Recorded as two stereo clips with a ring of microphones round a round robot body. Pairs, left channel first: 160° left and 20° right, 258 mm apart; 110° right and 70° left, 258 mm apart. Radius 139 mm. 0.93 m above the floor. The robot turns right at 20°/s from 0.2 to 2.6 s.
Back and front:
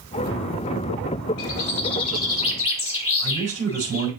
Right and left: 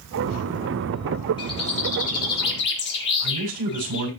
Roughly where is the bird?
Behind.